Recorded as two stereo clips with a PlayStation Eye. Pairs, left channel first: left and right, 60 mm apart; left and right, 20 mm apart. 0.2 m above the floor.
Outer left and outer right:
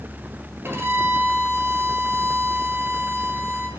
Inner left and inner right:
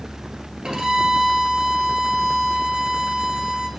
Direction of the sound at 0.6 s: 45° right (ahead or behind).